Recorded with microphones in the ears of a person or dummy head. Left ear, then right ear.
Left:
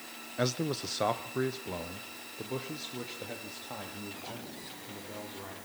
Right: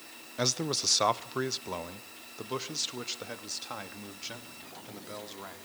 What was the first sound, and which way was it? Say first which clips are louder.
A man speaking: right 2 dB; 20° right (ahead or behind).